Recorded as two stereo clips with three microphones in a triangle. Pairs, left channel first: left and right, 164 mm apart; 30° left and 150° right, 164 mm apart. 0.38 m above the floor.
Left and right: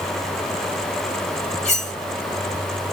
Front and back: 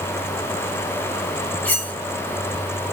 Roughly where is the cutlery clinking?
Left.